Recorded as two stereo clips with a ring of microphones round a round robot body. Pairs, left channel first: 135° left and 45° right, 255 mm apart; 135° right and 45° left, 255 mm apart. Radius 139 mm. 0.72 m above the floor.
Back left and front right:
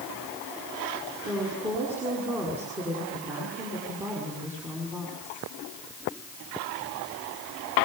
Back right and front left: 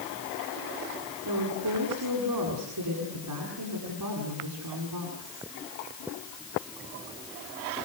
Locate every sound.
1.2 s a woman speaking: 35° left, 8 m